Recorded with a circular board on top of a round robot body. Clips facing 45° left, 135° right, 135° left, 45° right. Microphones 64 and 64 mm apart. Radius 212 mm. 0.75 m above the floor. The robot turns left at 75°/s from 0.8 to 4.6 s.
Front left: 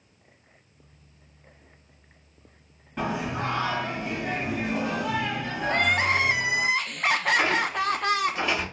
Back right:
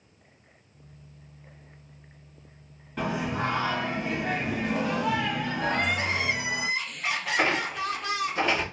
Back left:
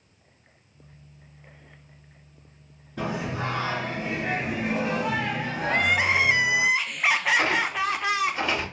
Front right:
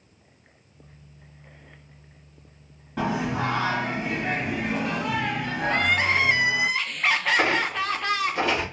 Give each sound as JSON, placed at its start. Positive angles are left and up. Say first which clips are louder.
{"t": 3.0, "sound": "singing", "louder": "even, front right 4 dB", "azimuth_deg": -35, "distance_m": 1.3}
{"t": 5.7, "sound": "crying", "louder": "front left 6 dB, even", "azimuth_deg": 55, "distance_m": 0.5}
{"t": 7.4, "sound": "a squeak", "louder": "front left 2 dB, front right 1 dB", "azimuth_deg": -80, "distance_m": 1.0}